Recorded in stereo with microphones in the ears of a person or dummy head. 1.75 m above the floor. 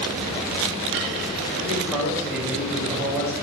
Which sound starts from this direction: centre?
A man speaking, at 1.6 s.